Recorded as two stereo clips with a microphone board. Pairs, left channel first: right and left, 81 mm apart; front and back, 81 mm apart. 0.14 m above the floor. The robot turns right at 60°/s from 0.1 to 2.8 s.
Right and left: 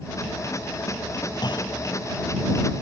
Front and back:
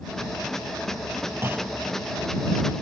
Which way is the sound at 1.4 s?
120° right.